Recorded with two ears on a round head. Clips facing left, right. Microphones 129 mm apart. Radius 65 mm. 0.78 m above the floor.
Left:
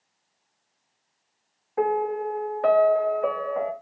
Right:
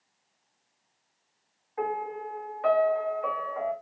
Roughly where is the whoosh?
I don't hear a whoosh.